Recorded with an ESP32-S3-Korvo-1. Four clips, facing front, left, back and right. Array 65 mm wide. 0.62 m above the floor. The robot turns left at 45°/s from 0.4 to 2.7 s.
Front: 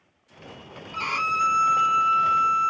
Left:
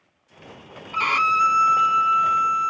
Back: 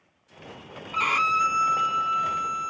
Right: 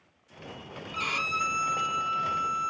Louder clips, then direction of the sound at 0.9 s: Left 11 dB, back 2 dB; 110° left.